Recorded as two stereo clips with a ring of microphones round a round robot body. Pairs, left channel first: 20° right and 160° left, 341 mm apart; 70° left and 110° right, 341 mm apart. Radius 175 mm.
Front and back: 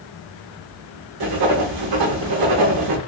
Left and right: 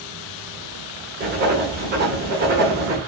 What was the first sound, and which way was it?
Writing, 175° right.